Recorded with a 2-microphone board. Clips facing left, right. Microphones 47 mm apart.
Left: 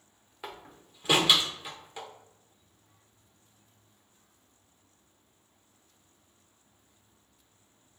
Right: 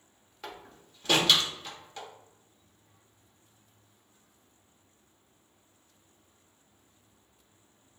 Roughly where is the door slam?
Centre.